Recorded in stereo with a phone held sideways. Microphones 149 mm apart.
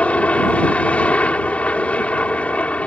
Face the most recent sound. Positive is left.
turn(degrees=10)  # may be behind; listen again after turning